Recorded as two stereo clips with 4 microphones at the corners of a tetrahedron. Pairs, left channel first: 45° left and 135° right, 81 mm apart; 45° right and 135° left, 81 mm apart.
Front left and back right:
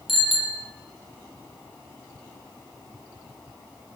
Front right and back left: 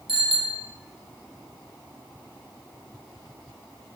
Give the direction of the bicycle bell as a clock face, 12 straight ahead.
7 o'clock.